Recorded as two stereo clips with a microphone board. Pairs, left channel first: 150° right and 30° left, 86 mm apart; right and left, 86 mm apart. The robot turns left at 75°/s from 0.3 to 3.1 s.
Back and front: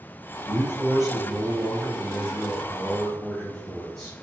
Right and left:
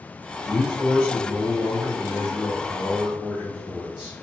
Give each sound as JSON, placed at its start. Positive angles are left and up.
{"t": 0.4, "sound": "a man speaking", "azimuth_deg": -15, "distance_m": 1.4}